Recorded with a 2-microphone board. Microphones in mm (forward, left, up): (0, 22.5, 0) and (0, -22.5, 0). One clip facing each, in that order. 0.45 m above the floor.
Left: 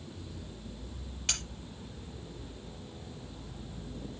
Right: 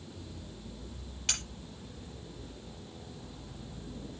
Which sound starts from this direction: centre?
Cutlery clinking, at 1.3 s.